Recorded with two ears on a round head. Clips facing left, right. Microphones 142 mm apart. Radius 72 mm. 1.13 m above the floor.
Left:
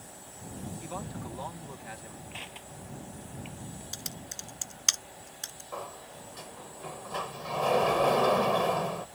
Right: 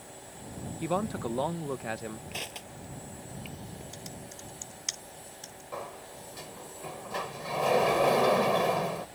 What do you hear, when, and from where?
0.8 s a man speaking: 65° right (ahead or behind)
2.3 s crushing: 50° right (ahead or behind)
3.9 s typing on a keyboard: 75° left (ahead or behind)
5.7 s a sliding door: 5° right (ahead or behind)